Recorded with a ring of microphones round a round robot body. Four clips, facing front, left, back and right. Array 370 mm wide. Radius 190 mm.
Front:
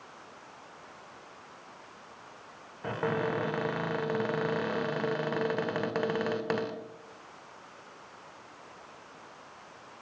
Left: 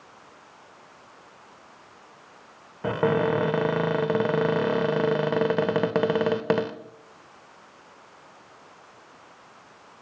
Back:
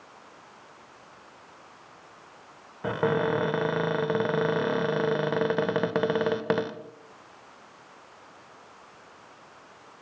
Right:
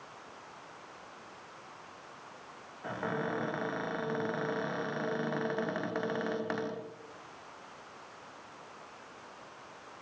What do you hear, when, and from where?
2.8 s a cupboard door: 110° left, 1.7 m